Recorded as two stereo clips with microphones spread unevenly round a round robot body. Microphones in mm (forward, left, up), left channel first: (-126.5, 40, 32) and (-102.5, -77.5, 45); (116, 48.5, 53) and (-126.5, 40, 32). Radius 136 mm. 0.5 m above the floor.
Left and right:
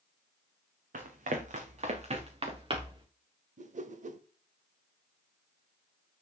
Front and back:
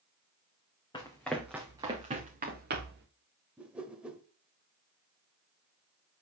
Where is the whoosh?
95° right, 1.1 m.